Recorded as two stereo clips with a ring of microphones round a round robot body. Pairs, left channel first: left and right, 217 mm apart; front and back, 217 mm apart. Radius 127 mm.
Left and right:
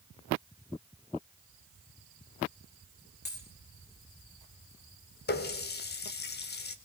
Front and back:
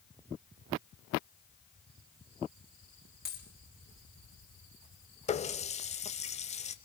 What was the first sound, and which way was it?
A dropped coin, 50° left.